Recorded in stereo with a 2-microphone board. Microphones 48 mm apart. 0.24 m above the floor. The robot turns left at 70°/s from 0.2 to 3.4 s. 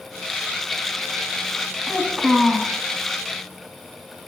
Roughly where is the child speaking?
Behind right.